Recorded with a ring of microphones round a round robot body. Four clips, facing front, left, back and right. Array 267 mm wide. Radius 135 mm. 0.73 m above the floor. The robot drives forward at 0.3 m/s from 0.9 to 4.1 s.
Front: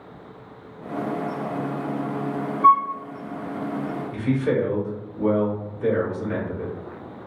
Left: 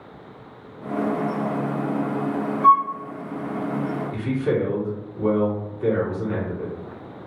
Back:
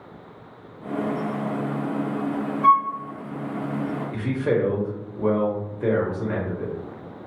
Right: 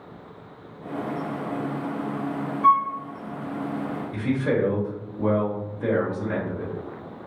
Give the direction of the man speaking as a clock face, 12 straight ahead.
5 o'clock.